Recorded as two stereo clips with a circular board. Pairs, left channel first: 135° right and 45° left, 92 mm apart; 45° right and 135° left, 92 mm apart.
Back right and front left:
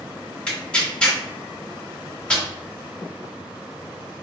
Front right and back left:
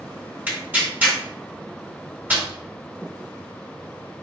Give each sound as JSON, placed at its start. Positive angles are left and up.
{"t": 0.5, "sound": "tearing paper", "azimuth_deg": 165, "distance_m": 1.3}